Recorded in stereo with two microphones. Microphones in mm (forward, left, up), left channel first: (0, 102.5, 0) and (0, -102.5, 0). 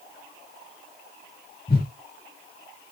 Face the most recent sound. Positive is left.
turn(degrees=50)  # may be behind; listen again after turning